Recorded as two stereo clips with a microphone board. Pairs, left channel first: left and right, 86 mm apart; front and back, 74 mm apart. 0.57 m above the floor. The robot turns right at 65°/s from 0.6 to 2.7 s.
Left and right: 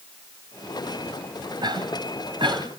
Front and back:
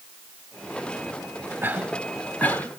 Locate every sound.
1.6 s a cough: 120° right, 3 m; by 2.7 s 50° right, 3 m